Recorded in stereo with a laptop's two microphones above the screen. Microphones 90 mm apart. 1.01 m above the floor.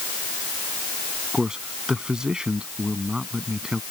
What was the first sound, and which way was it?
A man speaking, 10° right (ahead or behind).